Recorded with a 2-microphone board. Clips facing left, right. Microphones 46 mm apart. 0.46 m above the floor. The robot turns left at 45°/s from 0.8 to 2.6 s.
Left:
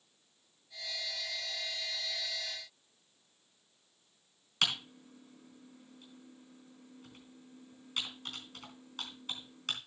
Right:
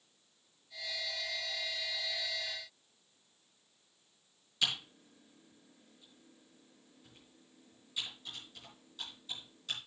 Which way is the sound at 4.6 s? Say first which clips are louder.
Left 2 dB; 70° left (ahead or behind).